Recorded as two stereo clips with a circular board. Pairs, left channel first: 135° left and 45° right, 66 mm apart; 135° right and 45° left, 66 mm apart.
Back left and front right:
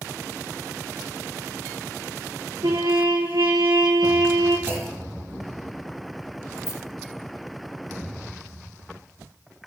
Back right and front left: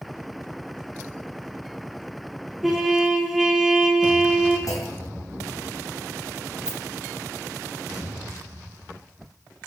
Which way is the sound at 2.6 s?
40° right.